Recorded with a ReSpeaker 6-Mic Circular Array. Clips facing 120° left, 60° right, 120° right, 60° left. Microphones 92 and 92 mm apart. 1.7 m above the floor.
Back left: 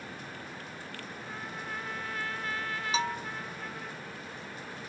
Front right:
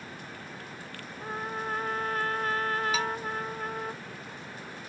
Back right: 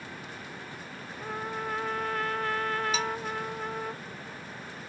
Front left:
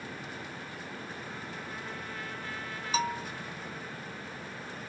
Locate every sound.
1.2 s a trumpet: 100° right
2.9 s a bell: 75° left